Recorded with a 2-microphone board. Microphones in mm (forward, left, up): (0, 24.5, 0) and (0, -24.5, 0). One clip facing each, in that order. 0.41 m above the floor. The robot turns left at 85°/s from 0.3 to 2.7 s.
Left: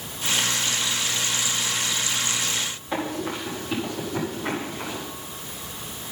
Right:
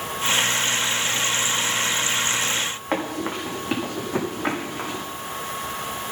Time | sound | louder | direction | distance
2.9 | running footsteps | right 2 dB | 55° right (ahead or behind) | 6 m